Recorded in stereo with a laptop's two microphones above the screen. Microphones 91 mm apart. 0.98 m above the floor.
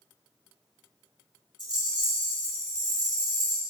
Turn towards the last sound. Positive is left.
turn(degrees=-50)  # may be behind; listen again after turning